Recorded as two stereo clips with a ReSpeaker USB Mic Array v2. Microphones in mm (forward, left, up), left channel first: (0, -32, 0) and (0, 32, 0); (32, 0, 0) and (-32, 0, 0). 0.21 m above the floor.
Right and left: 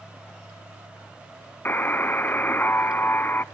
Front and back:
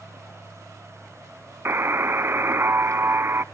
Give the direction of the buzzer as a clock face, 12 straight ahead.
5 o'clock.